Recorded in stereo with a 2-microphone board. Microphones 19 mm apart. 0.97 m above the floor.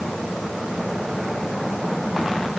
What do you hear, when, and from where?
Only background noise.